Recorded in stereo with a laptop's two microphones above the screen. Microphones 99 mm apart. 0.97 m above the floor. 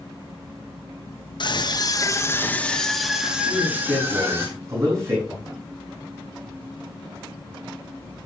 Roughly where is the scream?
Left.